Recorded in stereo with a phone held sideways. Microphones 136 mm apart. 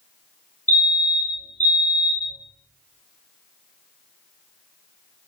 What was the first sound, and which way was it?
A fire alarm, 65° left (ahead or behind).